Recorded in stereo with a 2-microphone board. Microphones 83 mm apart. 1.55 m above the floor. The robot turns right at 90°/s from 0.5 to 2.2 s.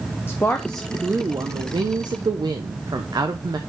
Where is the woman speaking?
150° left, 0.7 m; by 3.6 s 55° right, 0.7 m.